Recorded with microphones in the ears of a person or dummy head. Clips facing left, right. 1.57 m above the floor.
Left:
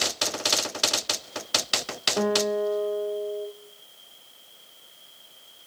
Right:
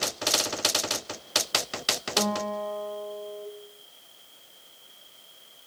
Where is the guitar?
20° left (ahead or behind), 2 m.